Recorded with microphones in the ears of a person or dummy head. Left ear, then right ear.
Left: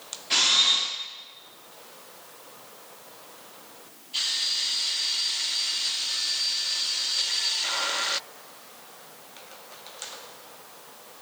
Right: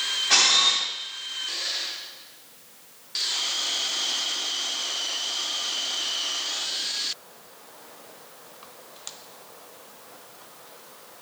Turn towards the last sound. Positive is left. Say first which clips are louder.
# right 1 dB
turn(degrees=-30)  # may be behind; listen again after turning